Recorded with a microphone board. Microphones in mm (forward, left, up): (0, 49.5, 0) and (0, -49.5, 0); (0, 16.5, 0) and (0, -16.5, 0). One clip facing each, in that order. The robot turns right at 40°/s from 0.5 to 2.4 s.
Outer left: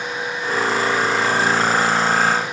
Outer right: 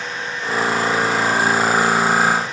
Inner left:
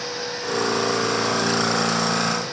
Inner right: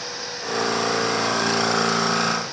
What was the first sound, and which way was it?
Only background noise.